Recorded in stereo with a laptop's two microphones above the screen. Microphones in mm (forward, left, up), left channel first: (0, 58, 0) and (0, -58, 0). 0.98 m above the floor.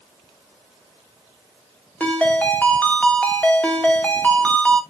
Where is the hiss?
No hiss in this recording.